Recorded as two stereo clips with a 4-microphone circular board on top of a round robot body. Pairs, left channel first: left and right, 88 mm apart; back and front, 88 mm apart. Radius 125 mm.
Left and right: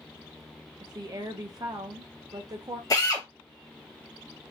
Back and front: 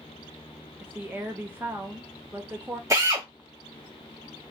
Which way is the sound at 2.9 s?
50° left.